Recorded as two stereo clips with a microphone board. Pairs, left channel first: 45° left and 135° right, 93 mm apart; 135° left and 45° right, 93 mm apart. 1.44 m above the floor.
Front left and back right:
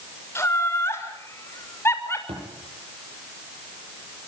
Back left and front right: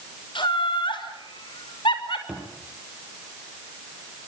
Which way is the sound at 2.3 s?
125° right.